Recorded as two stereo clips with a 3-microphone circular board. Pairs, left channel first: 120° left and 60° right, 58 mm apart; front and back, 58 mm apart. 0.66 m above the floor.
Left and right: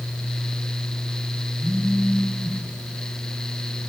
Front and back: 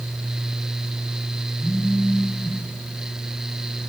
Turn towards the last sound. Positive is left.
turn(degrees=-80)